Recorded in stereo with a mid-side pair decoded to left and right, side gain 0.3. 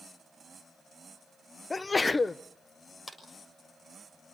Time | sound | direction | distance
1.7 | a sneeze | 35° left | 0.8 m
3.1 | a clap | 35° left | 6 m